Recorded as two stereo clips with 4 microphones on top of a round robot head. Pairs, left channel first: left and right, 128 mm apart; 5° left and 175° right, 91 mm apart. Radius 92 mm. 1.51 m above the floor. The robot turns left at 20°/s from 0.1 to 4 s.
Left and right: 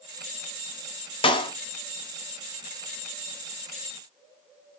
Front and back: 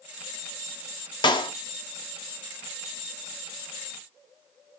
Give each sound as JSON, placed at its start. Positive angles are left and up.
{"t": 1.2, "sound": "a clap", "azimuth_deg": 40, "distance_m": 1.1}